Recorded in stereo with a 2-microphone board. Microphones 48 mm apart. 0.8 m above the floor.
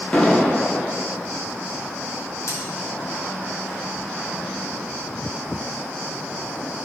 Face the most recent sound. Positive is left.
turn(degrees=80)